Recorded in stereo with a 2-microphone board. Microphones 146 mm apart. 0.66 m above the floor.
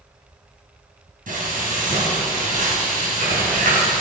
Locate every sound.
1.3 s frying: 70° right (ahead or behind), 4 m